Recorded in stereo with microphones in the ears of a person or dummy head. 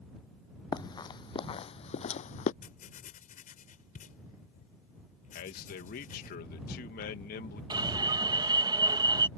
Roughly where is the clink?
I don't hear a clink.